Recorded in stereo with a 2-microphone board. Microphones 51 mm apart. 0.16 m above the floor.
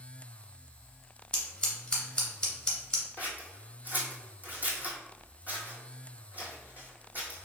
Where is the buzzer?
No buzzer in this recording.